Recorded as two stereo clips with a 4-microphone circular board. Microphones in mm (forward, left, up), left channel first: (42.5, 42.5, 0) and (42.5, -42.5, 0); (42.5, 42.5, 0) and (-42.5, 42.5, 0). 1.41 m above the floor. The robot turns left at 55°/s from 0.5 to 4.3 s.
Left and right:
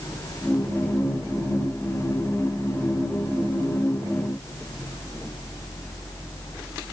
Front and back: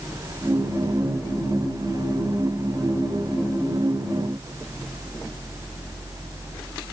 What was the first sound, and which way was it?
Only background noise.